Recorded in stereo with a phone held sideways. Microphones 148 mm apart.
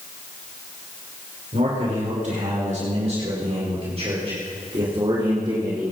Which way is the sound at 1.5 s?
60° right (ahead or behind).